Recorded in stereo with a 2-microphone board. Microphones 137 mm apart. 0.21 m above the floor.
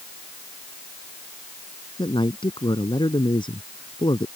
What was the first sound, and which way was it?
A man speaking, 35° left (ahead or behind).